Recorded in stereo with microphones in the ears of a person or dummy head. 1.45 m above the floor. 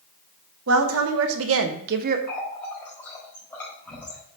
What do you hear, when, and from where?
0.7 s a woman speaking: 75° right (ahead or behind), 1.3 m; by 2.2 s 45° right (ahead or behind), 0.7 m
2.3 s a running tap: 10° left (ahead or behind), 4 m